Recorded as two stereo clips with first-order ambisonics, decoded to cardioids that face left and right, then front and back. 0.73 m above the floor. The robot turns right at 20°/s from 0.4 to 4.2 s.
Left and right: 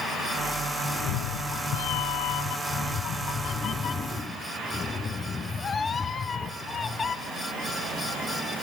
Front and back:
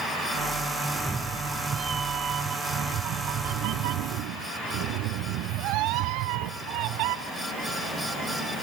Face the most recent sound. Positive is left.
turn(degrees=160)